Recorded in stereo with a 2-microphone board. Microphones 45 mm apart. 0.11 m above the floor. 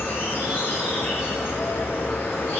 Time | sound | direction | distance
0.0 | an insect | 55° left (ahead or behind) | 1.5 m